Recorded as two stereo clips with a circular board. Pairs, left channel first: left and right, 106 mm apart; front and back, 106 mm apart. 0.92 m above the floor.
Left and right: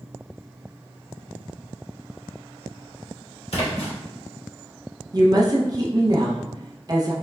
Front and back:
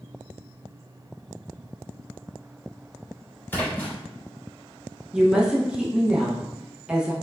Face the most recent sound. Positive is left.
turn(degrees=-105)